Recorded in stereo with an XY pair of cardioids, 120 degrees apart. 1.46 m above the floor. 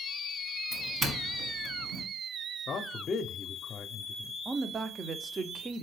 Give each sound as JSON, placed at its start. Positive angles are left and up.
{"t": 0.7, "sound": "a doorbell", "azimuth_deg": -40, "distance_m": 1.2}
{"t": 2.7, "sound": "a man speaking", "azimuth_deg": 35, "distance_m": 0.6}
{"t": 4.5, "sound": "a woman speaking", "azimuth_deg": -35, "distance_m": 0.6}